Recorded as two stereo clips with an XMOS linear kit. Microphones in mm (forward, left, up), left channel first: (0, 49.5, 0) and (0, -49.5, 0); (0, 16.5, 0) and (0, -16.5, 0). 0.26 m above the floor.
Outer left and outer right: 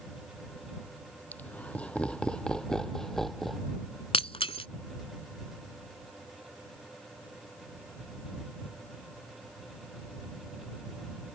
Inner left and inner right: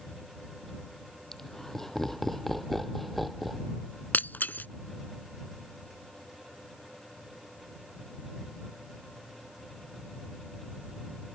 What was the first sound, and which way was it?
Laughter, 15° left (ahead or behind).